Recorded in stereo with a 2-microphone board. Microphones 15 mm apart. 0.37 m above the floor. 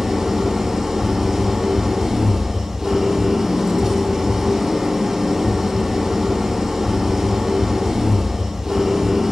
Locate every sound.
0.0 s an engine running: 50° right (ahead or behind), 3 m